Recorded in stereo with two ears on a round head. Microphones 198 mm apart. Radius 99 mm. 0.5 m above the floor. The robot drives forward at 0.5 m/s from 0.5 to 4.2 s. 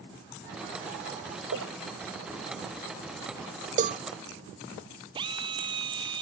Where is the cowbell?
35° right (ahead or behind).